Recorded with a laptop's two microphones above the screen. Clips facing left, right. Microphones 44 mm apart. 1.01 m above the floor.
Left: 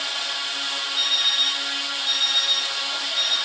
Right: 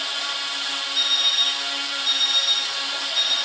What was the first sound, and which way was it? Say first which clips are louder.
An alarm clock: right 1 dB; 70° right (ahead or behind).